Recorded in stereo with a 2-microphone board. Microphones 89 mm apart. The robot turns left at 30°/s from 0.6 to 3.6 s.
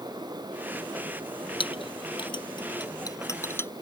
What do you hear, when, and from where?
1.6 s a clink: 85° left; by 3.7 s 30° left (ahead or behind)